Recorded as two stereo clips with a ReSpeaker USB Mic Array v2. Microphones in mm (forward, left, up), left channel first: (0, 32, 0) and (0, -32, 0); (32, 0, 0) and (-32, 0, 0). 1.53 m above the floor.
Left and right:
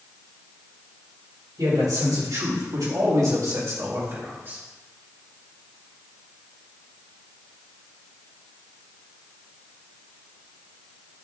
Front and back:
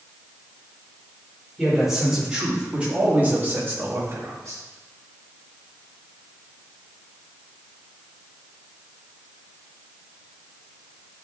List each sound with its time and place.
1.6 s a man speaking: 95° right, 4 m; by 4.6 s 145° right, 2.5 m